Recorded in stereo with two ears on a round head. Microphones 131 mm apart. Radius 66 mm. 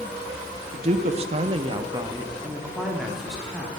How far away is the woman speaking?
About 0.7 m.